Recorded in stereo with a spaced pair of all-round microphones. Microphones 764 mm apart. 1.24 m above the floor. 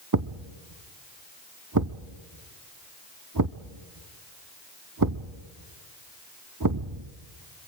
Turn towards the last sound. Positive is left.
turn(degrees=-25)  # may be behind; listen again after turning